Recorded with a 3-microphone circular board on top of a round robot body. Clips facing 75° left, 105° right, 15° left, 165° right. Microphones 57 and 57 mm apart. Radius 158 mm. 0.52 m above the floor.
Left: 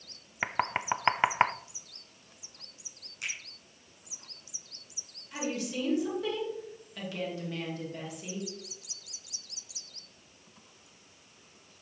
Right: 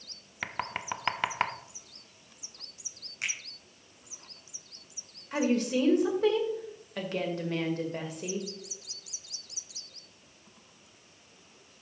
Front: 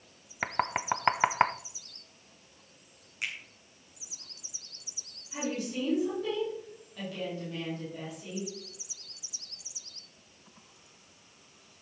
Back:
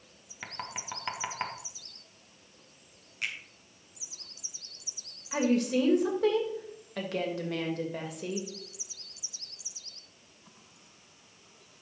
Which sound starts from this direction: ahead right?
A finger snap, at 3.2 s.